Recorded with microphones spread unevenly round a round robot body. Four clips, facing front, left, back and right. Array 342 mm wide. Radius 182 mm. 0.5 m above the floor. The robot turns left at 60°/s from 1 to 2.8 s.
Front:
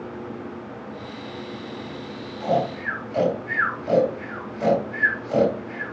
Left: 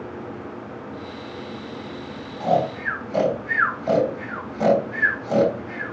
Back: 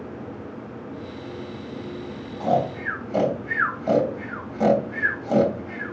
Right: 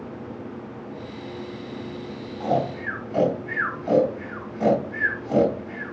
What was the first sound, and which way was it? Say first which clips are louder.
Snoring: left 3 dB, back 1 dB; 165° left.